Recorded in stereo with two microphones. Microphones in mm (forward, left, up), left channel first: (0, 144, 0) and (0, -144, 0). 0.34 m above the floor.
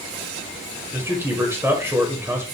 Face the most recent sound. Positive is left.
turn(degrees=-10)  # may be behind; listen again after turning